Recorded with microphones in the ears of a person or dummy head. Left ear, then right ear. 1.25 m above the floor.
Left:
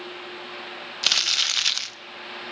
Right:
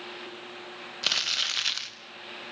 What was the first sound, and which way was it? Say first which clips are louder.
Crumpling: left 5 dB; 15° left (ahead or behind).